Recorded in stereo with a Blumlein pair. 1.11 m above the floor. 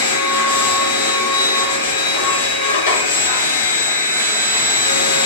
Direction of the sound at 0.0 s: 65° left.